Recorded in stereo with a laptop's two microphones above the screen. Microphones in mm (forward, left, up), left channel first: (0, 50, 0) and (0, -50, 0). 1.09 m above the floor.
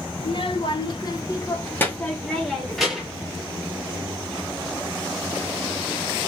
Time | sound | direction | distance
0.2 | a child speaking | 70° left (ahead or behind) | 1.1 m